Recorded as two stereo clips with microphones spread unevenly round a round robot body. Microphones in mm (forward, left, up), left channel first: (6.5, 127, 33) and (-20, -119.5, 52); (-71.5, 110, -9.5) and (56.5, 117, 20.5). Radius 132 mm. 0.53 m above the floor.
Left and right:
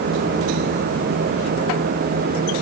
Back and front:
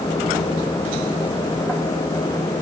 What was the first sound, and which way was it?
Only background noise.